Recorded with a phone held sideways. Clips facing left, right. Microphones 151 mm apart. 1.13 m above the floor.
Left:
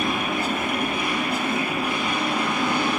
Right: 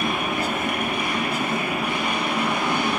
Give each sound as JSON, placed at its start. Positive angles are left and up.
{"t": 0.0, "sound": "a machine running", "side_deg": -75, "distance_m": 5.5}